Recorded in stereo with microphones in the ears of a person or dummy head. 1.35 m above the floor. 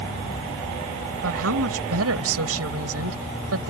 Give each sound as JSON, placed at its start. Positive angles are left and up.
{"t": 1.2, "sound": "a woman speaking", "side_deg": -85}